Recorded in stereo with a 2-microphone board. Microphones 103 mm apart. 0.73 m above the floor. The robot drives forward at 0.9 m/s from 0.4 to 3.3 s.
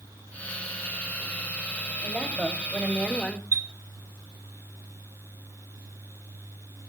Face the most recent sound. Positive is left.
turn(degrees=-35)  # may be behind; listen again after turning